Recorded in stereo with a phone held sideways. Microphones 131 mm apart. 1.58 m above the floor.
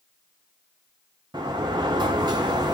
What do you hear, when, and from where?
1.3 s a sliding door: 30° right (ahead or behind), 0.6 m